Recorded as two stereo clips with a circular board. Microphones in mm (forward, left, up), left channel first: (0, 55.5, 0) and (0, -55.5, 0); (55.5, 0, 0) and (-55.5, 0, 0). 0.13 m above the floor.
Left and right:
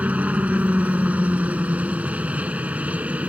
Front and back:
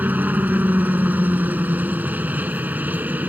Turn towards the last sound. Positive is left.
turn(degrees=-140)